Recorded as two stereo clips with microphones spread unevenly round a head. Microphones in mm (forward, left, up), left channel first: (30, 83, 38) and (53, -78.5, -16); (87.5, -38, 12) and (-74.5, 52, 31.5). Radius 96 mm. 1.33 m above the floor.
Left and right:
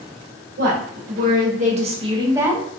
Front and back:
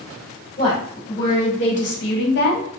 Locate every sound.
0.6 s a woman speaking: 70° right, 1.2 m; by 2.7 s 5° right, 0.6 m